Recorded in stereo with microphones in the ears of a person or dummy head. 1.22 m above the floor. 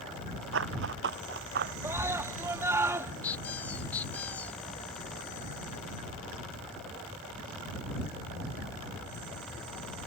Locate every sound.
0.5 s running footsteps: 70° right (ahead or behind); by 1.7 s 55° right (ahead or behind)
1.8 s a scream: 15° right (ahead or behind)
3.2 s a squeak: 10° left (ahead or behind)